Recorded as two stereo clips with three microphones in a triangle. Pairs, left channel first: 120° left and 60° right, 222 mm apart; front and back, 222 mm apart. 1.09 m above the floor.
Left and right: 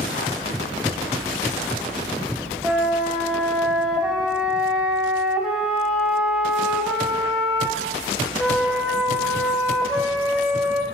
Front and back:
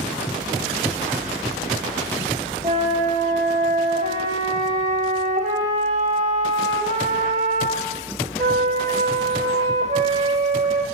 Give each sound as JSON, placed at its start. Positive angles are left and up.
{"t": 2.6, "sound": "a flute", "azimuth_deg": -140, "distance_m": 1.0}